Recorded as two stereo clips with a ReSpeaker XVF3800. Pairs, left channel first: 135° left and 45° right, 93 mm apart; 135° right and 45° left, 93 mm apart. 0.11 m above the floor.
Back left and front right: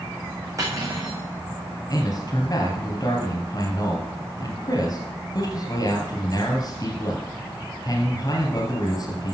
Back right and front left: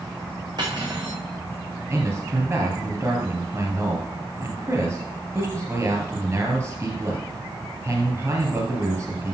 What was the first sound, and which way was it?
Cutlery clinking, 10° left.